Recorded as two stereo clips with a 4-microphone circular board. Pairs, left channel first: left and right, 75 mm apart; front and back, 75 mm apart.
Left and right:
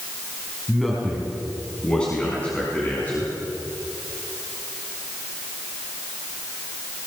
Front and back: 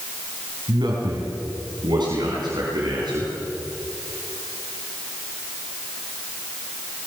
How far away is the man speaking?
About 4.5 m.